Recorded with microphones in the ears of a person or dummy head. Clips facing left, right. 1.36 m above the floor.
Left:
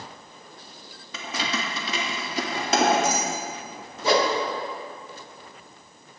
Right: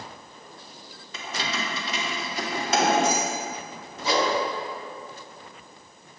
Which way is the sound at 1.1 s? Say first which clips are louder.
Left 2 dB; 60° left (ahead or behind).